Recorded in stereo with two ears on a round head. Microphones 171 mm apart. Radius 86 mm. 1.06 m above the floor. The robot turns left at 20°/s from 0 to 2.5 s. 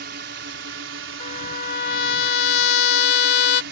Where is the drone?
60° right; by 3.7 s 110° right.